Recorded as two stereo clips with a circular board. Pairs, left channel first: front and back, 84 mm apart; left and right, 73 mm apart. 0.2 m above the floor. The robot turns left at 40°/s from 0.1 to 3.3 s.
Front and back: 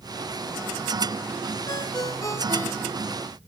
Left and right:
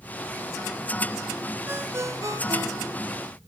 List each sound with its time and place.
1.7 s a ringtone: 25° right, 2 m; by 3.2 s 85° right, 2 m